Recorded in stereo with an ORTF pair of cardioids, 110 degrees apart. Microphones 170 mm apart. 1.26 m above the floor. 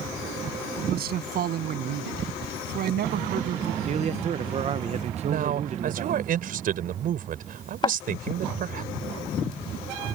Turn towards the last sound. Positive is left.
turn(degrees=30)